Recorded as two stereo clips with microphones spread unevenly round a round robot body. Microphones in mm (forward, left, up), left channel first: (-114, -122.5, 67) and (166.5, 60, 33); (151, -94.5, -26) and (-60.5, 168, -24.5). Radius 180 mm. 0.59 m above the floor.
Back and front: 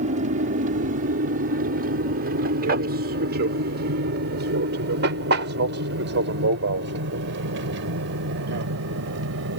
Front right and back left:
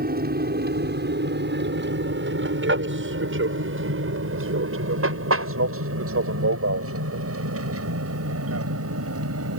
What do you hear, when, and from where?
0.0 s an aircraft: 80° left; by 9.6 s 85° left